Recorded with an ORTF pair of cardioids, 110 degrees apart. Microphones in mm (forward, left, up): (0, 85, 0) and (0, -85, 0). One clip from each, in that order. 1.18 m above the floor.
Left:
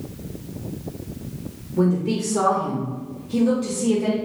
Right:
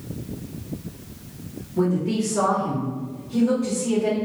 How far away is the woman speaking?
About 1.4 m.